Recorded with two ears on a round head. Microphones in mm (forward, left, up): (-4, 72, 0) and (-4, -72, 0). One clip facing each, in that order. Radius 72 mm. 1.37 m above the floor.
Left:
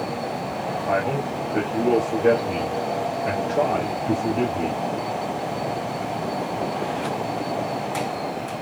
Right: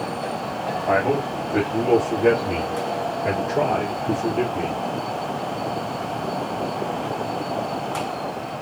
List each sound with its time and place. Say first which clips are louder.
0.9 s a man speaking: right 4 dB; 80° right, 1.5 m